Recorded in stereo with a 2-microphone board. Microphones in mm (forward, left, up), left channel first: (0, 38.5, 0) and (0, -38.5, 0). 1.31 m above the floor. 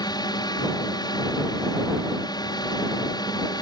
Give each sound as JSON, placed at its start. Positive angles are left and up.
{"t": 0.0, "sound": "a drone", "side_deg": 65}